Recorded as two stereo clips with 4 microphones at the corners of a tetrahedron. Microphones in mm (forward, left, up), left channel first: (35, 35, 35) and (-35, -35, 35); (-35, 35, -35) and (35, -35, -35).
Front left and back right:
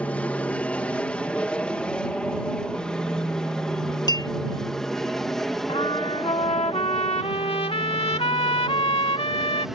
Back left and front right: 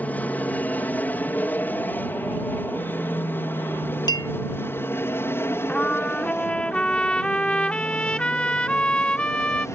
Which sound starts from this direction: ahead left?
A trumpet, at 5.7 s.